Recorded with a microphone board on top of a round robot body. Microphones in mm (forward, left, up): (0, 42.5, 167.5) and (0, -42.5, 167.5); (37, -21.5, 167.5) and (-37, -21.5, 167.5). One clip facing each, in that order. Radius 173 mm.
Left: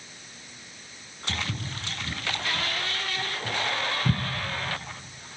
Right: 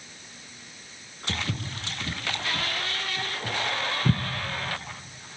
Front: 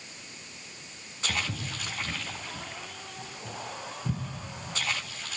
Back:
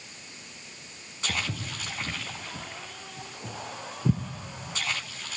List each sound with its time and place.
1.3 s footsteps: 105° right, 2.5 m; by 4.2 s 150° right, 0.8 m